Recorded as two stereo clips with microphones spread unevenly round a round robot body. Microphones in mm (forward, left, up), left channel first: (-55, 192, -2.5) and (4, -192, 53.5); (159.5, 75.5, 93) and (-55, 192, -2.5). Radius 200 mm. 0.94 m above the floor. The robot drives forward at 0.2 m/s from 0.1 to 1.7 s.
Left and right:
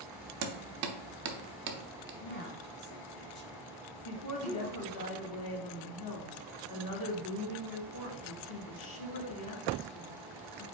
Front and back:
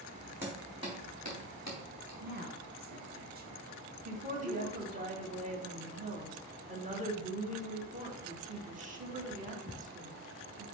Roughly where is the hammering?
Right.